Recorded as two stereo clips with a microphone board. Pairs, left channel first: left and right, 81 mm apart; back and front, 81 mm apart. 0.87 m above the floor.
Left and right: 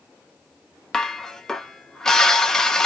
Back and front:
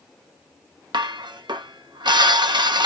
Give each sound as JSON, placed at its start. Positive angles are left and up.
{"t": 0.9, "sound": "dishes clattering", "azimuth_deg": 5, "distance_m": 0.6}